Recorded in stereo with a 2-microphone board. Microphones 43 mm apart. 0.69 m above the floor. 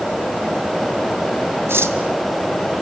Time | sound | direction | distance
1.7 | cutlery clinking | 70° right (ahead or behind) | 2.5 m